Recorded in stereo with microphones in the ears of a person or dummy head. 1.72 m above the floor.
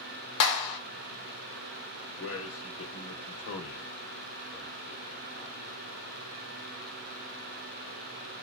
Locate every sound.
0.4 s a clap: 70° left (ahead or behind), 1.0 m
2.2 s a man speaking: 75° left (ahead or behind), 0.9 m